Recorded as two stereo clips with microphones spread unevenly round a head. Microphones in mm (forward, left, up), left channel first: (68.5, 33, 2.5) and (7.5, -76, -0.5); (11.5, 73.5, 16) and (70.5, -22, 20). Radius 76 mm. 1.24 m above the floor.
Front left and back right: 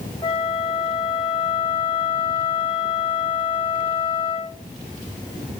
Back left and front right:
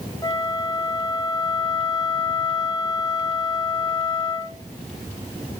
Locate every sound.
0.2 s a flute: 85° left, 1.2 m